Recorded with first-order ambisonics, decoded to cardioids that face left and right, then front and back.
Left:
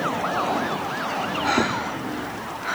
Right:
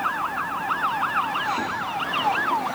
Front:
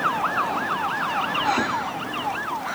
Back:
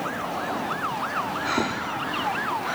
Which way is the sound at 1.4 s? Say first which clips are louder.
Left 3 dB, front 3 dB; 100° left.